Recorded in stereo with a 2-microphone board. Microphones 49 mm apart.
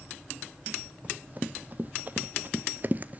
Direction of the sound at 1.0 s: 35° right (ahead or behind).